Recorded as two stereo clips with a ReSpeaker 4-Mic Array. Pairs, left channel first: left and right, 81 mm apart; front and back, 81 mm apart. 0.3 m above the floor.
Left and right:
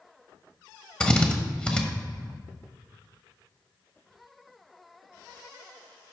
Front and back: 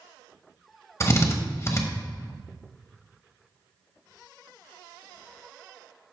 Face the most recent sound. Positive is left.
turn(degrees=20)